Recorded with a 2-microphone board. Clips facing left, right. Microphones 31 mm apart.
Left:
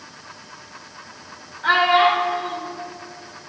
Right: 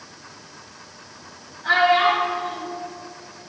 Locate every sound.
1.6 s a child speaking: 65° left (ahead or behind), 1.7 m